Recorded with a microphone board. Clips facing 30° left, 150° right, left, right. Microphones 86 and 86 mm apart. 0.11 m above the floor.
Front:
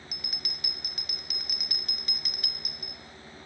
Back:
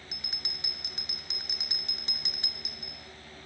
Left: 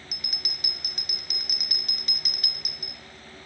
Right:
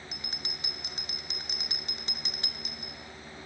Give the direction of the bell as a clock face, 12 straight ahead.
4 o'clock.